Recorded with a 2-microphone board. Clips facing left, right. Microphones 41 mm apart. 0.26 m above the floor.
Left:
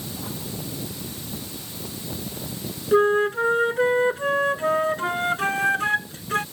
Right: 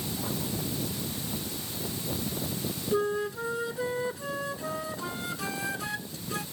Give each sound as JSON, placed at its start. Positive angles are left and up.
{"t": 2.9, "sound": "a flute", "side_deg": 50}